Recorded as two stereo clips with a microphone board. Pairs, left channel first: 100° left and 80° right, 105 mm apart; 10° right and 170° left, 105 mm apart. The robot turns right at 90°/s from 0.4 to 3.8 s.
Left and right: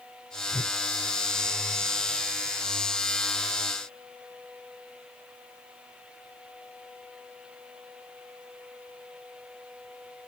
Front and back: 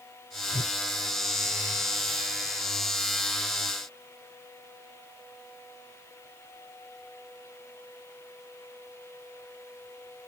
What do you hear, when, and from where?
0.5 s a whoosh: 5° right; by 0.8 s 15° left